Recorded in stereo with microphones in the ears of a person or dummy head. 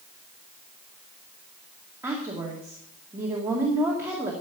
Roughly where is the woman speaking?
Centre.